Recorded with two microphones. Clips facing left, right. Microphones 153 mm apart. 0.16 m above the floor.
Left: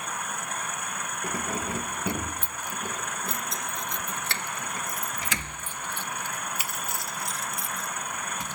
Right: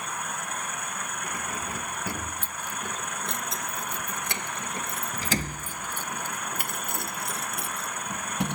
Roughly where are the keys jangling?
Left.